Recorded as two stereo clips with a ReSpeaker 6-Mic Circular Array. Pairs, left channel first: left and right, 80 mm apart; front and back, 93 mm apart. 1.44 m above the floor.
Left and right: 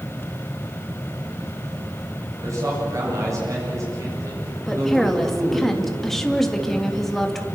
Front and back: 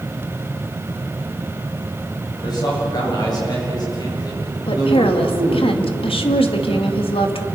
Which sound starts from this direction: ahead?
A woman speaking, at 4.7 s.